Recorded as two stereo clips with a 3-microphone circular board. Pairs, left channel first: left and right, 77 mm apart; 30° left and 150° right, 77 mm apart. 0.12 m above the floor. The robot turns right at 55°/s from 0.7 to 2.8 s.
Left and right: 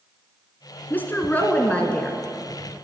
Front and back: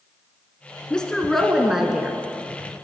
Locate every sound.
0.9 s a woman speaking: 90° left, 1.5 m; by 2.2 s 160° left, 1.5 m